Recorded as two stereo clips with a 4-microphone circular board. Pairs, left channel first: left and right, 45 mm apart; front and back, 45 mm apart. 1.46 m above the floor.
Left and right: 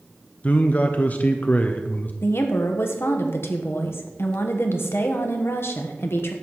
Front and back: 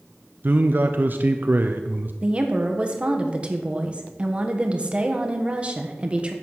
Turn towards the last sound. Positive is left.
turn(degrees=115)